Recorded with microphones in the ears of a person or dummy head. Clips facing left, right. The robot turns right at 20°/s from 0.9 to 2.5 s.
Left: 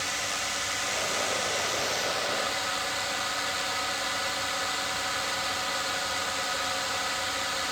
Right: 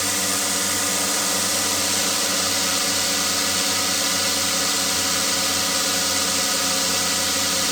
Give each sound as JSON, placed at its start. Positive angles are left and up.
{"t": 0.0, "sound": "a drone", "azimuth_deg": -105}